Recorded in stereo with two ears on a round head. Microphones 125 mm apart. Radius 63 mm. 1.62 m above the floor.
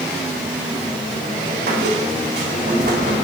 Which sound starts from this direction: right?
A squeak, at 1.7 s.